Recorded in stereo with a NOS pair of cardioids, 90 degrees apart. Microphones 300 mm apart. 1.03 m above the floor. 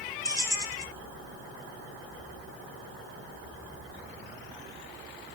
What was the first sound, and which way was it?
Keys jangling, 10° left.